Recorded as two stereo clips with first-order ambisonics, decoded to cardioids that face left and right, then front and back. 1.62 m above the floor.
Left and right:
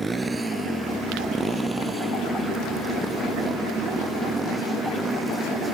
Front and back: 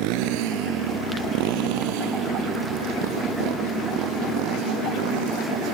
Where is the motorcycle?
170° right; by 5.7 s 175° right.